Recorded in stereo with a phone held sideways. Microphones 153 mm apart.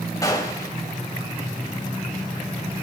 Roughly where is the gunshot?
Left.